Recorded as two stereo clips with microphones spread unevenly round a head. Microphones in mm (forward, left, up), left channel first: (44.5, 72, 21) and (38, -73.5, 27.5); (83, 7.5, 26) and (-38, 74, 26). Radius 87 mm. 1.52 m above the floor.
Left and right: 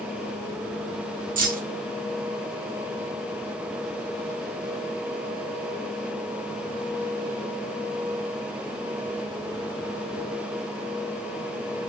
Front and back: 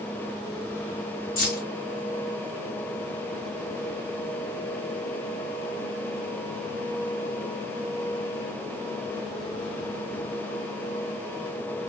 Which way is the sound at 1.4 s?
70° right.